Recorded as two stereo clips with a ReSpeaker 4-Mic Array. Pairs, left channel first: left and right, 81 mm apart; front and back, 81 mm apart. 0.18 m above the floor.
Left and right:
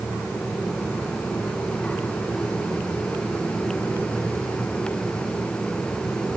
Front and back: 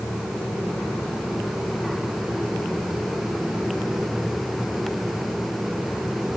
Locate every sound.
Only background noise.